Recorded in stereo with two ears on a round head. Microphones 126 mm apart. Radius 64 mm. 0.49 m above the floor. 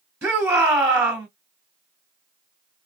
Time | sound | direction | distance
0.2 | a shout | 10° right (ahead or behind) | 1.3 m